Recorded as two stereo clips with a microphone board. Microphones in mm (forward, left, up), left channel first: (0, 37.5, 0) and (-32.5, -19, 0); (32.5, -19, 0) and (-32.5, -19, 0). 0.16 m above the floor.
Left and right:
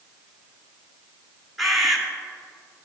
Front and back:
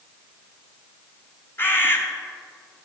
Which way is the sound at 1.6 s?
30° right.